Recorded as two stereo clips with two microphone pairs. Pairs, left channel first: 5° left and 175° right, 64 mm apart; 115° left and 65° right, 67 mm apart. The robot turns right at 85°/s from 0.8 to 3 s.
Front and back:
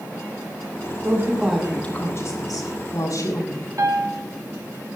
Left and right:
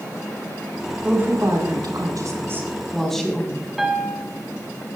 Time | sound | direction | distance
1.0 | a woman speaking | 135° right | 6 m
3.8 | a piano | 145° right | 2.5 m